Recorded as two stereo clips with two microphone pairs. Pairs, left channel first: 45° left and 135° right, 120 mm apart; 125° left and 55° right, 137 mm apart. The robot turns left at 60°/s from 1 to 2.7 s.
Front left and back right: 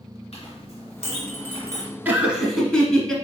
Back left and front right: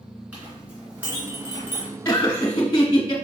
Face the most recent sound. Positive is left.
turn(degrees=125)